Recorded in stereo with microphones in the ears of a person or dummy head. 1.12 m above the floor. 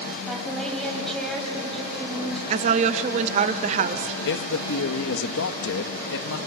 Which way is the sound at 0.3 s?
5° left (ahead or behind).